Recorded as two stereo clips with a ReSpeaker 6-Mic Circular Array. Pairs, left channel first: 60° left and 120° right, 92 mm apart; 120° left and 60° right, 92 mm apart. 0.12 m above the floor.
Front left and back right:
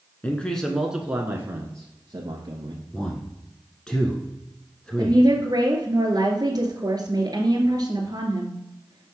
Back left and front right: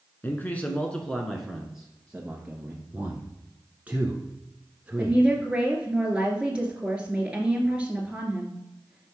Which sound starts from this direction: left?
A man speaking, at 0.2 s.